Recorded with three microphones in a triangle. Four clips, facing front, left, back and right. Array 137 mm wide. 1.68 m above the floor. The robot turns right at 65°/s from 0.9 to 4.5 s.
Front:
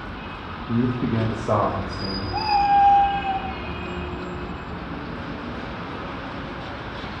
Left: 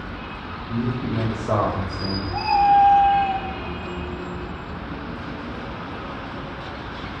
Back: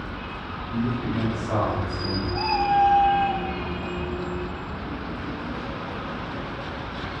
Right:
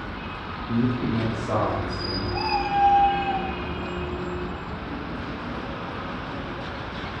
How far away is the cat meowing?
About 9 m.